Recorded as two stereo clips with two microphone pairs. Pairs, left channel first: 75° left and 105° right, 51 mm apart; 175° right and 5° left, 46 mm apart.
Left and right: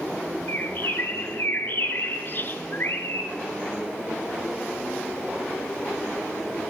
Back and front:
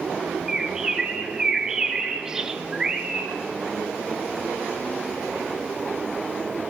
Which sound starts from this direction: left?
A bird, at 0.5 s.